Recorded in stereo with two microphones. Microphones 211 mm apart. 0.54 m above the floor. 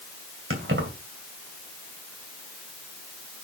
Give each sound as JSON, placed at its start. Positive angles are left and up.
{"t": 0.5, "sound": "keys jangling", "side_deg": -70, "distance_m": 2.5}